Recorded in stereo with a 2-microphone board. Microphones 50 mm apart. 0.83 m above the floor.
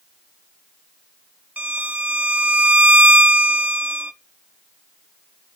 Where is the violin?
35° right (ahead or behind), 0.8 m.